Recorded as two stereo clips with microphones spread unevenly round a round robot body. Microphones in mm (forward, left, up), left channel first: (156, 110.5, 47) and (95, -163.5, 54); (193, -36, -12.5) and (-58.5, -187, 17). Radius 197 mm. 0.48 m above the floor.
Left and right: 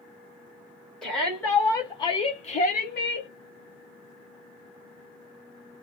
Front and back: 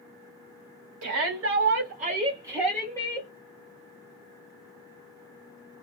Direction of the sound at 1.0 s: 165° left.